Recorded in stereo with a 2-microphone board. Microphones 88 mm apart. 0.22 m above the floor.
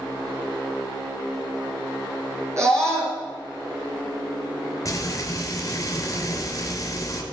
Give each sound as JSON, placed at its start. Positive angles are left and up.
{"t": 2.6, "sound": "a scream", "side_deg": -35, "distance_m": 3.0}
{"t": 4.8, "sound": "frying", "side_deg": 40, "distance_m": 3.0}